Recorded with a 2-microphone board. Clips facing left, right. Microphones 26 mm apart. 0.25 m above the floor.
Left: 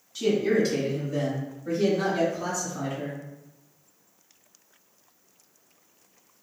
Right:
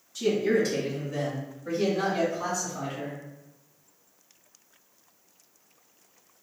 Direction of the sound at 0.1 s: 20° left (ahead or behind).